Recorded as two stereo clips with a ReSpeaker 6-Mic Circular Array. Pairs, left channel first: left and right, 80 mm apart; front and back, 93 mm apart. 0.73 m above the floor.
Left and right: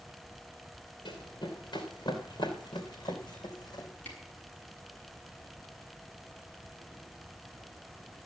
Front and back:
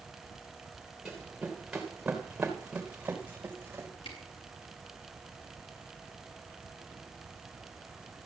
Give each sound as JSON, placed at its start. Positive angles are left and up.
{"t": 1.1, "sound": "running footsteps", "azimuth_deg": 90, "distance_m": 4.0}
{"t": 4.0, "sound": "a camera shutter", "azimuth_deg": 20, "distance_m": 4.5}